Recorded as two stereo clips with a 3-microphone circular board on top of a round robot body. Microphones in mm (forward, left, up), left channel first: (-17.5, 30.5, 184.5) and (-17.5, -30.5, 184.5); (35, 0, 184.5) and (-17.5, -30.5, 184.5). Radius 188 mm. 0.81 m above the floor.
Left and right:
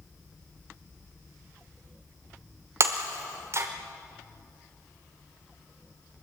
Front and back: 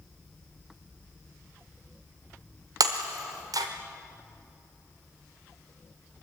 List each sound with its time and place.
2.8 s breaking glass: 130° right, 0.9 m